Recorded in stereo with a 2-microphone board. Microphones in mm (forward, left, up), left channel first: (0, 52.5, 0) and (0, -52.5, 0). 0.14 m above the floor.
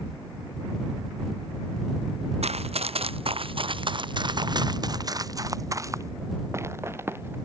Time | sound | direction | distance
2.4 | running footsteps | 75° right (ahead or behind) | ?